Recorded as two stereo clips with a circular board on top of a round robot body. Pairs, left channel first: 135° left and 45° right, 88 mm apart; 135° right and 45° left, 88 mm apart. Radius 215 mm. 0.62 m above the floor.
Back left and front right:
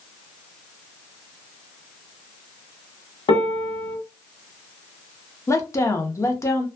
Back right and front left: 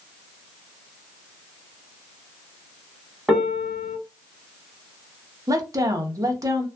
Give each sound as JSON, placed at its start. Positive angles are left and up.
{"t": 3.3, "sound": "a piano", "azimuth_deg": 125, "distance_m": 1.0}
{"t": 5.5, "sound": "a woman speaking", "azimuth_deg": 85, "distance_m": 0.9}